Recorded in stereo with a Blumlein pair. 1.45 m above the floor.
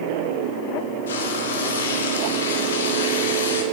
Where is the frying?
65° left, 0.9 m.